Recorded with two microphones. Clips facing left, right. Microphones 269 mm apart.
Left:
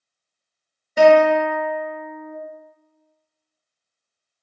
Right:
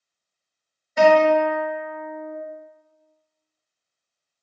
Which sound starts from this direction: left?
A guitar, at 1.0 s.